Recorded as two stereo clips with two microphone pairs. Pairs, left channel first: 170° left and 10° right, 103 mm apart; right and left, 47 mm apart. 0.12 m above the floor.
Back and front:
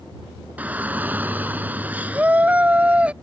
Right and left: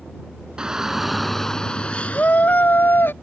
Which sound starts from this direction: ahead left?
A shout, at 0.6 s.